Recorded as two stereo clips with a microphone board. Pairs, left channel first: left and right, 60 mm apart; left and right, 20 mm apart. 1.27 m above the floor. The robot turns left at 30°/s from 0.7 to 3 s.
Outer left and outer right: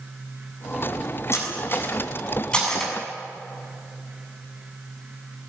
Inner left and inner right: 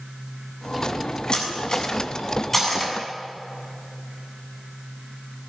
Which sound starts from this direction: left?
Cutlery clinking, at 1.3 s.